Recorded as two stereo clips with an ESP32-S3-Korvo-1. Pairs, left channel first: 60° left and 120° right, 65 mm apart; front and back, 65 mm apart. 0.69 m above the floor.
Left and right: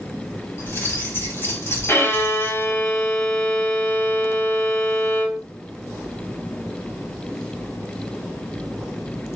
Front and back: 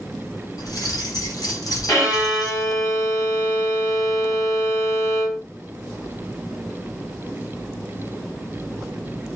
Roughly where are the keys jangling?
Ahead.